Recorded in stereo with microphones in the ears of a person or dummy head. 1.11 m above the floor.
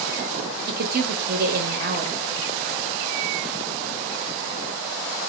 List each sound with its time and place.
0.7 s a woman speaking: 55° right (ahead or behind), 0.8 m